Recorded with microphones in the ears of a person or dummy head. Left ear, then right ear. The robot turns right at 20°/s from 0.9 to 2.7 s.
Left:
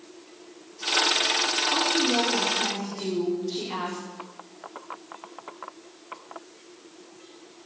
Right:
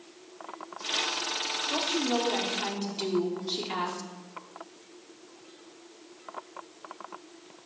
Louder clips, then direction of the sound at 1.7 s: Left 5 dB; 65° right (ahead or behind).